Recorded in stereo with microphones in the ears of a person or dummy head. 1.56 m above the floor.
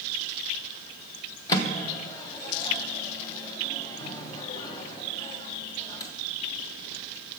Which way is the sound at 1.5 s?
20° left (ahead or behind).